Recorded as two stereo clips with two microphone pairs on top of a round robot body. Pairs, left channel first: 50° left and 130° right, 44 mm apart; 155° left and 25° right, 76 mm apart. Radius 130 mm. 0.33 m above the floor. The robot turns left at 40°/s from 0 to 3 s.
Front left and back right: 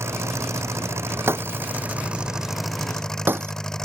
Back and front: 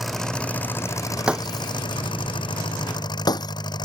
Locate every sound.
0.0 s an engine running: 110° right; by 3.9 s 130° left
1.3 s breaking glass: 100° right; by 3.5 s 170° right